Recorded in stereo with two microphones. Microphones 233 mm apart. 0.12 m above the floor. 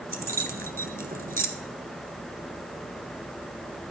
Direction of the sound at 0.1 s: 40° right (ahead or behind).